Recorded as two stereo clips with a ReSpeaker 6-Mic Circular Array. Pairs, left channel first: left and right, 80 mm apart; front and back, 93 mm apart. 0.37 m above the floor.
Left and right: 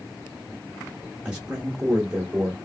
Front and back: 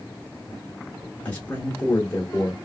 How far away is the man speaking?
About 0.8 m.